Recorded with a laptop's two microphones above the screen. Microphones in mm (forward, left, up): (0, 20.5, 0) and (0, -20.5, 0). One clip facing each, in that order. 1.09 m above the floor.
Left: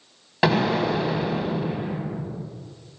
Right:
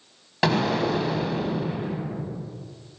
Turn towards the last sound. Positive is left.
turn(degrees=10)  # may be behind; listen again after turning